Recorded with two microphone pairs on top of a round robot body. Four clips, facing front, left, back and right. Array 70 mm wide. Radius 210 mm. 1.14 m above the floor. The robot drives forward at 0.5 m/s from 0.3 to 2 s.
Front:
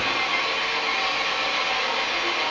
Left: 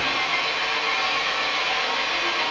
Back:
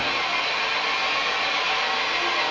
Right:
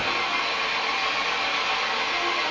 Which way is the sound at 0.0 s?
100° left.